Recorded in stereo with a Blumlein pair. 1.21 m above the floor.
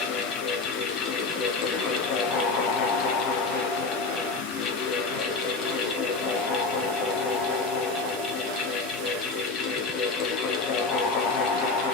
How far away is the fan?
About 1.0 m.